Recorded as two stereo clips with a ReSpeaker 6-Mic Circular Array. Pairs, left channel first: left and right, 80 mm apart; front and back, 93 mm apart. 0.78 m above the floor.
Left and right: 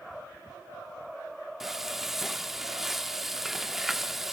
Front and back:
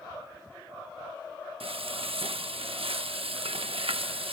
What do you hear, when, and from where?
1.6 s frying: 175° right, 0.7 m